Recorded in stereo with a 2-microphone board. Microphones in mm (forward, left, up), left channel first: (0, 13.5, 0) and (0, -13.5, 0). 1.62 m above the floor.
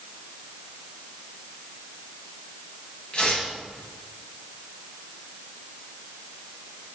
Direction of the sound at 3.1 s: 50° left (ahead or behind).